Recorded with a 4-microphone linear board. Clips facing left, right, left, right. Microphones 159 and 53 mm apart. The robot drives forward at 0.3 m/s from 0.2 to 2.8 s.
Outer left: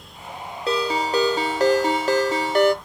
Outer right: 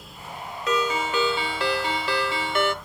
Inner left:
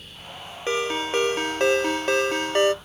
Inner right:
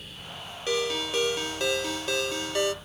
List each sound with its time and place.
0.7 s a ringtone: 30° left (ahead or behind), 0.6 m; by 2.7 s 40° left (ahead or behind), 0.5 m